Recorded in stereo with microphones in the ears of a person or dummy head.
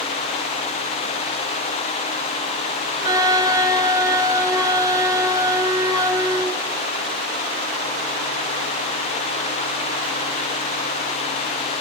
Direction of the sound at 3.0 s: 20° right (ahead or behind).